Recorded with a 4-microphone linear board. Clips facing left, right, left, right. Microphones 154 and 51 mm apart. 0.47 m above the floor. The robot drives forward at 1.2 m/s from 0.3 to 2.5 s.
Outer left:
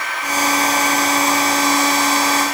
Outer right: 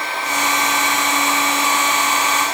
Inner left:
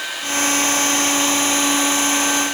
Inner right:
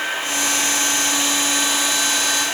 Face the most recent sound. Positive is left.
No sound to turn to.